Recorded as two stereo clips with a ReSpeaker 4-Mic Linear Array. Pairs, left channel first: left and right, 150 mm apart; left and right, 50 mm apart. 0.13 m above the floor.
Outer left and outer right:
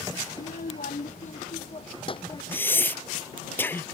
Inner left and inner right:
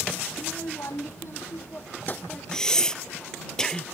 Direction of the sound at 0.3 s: 75° left (ahead or behind).